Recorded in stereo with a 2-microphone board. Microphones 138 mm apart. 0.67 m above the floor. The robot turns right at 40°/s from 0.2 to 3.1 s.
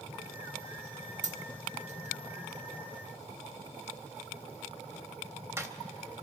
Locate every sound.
1.2 s a dropped coin: 60° right (ahead or behind), 0.7 m; by 5.7 s 20° right (ahead or behind), 0.7 m